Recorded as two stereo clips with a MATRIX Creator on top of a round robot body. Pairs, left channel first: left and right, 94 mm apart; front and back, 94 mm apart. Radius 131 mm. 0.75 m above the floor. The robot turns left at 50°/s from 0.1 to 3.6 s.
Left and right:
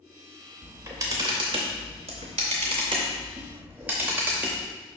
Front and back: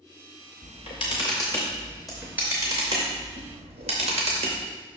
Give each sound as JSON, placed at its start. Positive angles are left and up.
{"t": 0.6, "sound": "a camera shutter", "azimuth_deg": -15, "distance_m": 0.7}